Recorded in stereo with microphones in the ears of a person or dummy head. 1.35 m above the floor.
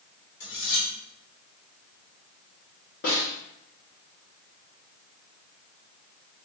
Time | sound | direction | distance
0.4 | cutlery clinking | 65° left (ahead or behind) | 1.6 m
3.0 | a snare drum | 45° left (ahead or behind) | 1.2 m